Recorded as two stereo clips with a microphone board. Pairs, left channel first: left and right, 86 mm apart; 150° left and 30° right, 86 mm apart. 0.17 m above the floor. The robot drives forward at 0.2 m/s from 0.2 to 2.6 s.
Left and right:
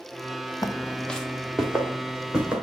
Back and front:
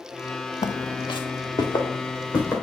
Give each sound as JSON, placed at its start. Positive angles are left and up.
{"t": 0.6, "sound": "footsteps", "azimuth_deg": 140, "distance_m": 0.7}